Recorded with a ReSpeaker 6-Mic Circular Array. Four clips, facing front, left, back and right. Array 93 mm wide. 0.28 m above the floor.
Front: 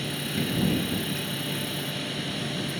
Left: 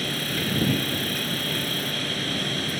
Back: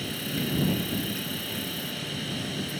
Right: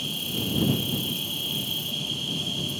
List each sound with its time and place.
0.0 s an insect: 85° left